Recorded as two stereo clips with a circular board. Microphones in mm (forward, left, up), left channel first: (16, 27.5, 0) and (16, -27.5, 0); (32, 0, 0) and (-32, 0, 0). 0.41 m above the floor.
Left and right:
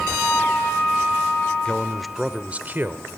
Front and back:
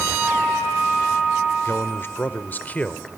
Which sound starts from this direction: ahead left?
A man speaking, at 1.6 s.